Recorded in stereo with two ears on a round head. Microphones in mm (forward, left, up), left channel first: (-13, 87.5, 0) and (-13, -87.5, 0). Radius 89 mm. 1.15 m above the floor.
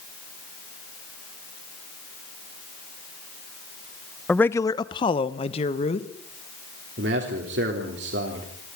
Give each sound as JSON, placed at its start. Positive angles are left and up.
{"t": 4.3, "sound": "a man speaking", "side_deg": 5, "distance_m": 0.5}
{"t": 7.0, "sound": "a man speaking", "side_deg": -60, "distance_m": 3.5}